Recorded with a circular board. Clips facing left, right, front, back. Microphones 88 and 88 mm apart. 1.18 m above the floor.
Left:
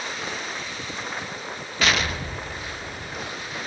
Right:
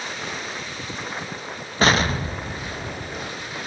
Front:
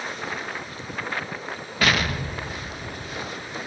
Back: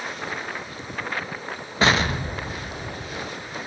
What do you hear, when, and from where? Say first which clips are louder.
1.8 s an explosion: right 5 dB, back 3 dB; 130° right, 0.5 m